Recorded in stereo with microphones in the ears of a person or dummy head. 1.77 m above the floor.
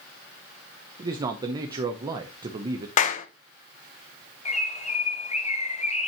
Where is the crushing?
I don't hear crushing.